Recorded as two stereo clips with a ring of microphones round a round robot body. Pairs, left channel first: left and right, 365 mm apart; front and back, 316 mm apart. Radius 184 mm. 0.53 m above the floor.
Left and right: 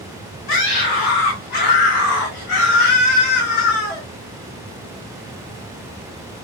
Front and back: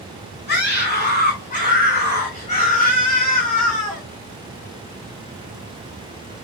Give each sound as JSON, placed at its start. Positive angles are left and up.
{"t": 0.5, "sound": "a scream", "azimuth_deg": 60, "distance_m": 4.5}